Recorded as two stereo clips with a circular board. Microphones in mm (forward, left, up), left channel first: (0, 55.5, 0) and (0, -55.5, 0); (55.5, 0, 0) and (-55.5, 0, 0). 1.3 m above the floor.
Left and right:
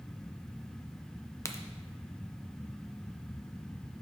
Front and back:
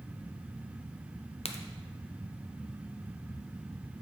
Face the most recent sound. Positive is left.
turn(degrees=25)